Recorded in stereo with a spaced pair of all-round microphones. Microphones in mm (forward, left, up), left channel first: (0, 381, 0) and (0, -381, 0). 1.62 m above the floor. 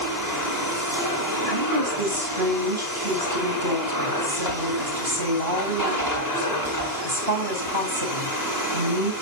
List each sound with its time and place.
0.0 s a machine running: 30° right (ahead or behind), 5.5 m
1.5 s a woman speaking: 30° right (ahead or behind), 9 m